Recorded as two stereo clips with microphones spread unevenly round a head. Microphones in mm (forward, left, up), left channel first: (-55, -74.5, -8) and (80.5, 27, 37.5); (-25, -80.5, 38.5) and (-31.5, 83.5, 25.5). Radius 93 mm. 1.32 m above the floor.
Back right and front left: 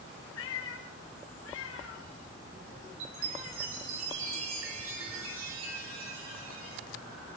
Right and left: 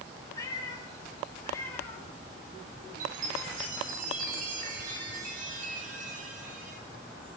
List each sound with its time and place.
0.3 s a cat meowing: 155° right, 4.5 m; by 3.7 s 165° right, 6.5 m
3.0 s a chime: 40° left, 6 m